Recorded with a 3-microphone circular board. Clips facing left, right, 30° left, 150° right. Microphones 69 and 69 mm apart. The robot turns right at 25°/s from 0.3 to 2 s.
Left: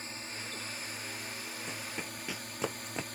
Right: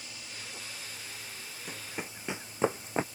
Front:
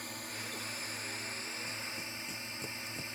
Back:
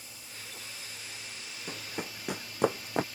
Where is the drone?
45° left; by 3.1 s 90° left.